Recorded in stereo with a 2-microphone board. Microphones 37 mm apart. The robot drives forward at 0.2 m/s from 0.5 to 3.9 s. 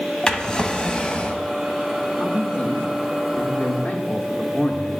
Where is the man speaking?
35° left (ahead or behind), 1.0 m; by 4.9 s 40° left (ahead or behind), 0.9 m.